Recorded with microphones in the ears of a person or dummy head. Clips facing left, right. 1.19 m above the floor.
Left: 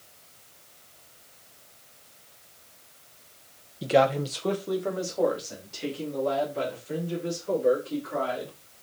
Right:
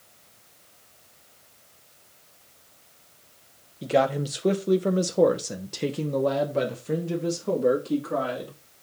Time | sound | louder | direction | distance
3.8 | a man speaking | left 1 dB | 5° left (ahead or behind) | 0.8 m